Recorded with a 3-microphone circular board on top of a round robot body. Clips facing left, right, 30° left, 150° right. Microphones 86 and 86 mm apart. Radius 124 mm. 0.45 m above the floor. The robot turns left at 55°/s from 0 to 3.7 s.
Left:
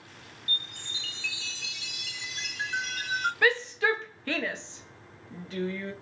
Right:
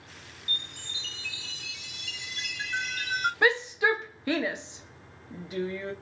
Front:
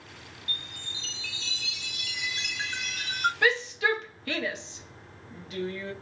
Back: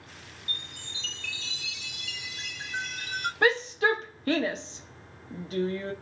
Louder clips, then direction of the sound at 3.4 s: Right 1 dB, back 4 dB; 140° right.